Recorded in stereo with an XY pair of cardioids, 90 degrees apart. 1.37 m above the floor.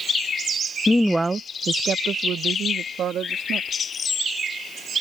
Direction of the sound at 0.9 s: 20° left.